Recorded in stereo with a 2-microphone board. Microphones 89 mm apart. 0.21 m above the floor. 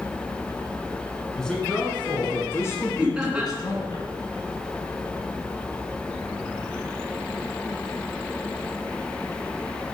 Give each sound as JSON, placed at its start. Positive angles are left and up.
{"t": 1.4, "sound": "a man speaking", "side_deg": 10, "distance_m": 2.0}
{"t": 3.0, "sound": "laughter", "side_deg": -10, "distance_m": 2.5}